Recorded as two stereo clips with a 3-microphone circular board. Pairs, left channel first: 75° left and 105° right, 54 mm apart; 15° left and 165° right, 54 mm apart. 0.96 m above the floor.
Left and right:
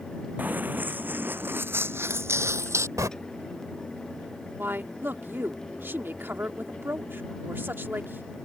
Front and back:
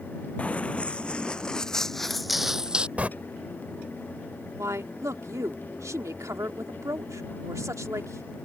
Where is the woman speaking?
155° right.